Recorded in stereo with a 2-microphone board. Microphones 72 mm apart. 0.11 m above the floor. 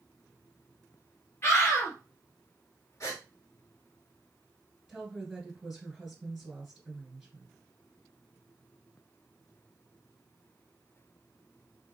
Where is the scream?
40° left (ahead or behind), 2.5 m.